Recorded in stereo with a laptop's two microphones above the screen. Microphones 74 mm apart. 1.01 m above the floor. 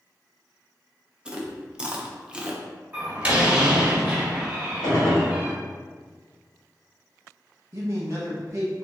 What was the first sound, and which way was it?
Chewing, 15° right (ahead or behind).